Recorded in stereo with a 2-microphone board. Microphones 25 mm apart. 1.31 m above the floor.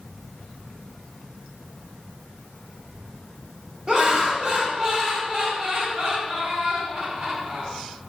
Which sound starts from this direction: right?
Laughter, at 3.9 s.